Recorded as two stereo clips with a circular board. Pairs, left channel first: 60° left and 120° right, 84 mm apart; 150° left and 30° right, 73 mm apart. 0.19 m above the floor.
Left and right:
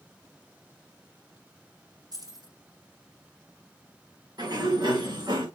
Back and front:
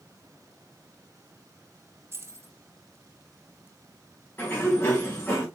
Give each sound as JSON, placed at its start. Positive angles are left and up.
{"t": 2.1, "sound": "keys jangling", "azimuth_deg": -85, "distance_m": 3.0}
{"t": 4.4, "sound": "a sliding door", "azimuth_deg": -150, "distance_m": 5.0}